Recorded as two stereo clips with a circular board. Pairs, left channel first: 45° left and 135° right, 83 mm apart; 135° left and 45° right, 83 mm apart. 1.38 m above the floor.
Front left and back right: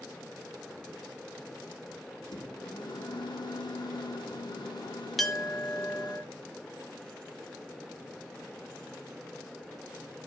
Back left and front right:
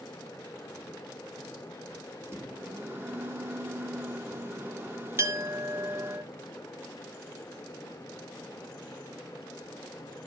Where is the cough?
I don't hear a cough.